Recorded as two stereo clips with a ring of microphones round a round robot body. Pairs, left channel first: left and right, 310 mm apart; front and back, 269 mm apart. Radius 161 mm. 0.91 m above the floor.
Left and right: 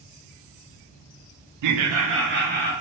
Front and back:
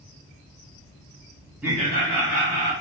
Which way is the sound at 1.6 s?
95° right.